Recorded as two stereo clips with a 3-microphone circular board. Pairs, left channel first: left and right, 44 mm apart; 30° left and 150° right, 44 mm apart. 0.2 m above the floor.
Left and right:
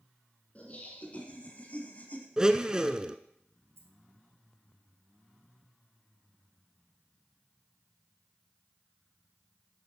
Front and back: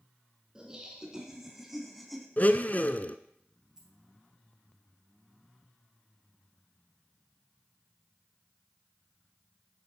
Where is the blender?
20° right, 0.5 m.